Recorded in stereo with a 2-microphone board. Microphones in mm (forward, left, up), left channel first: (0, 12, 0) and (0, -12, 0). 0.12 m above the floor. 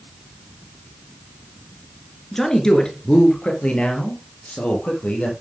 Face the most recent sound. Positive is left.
turn(degrees=70)  # may be behind; listen again after turning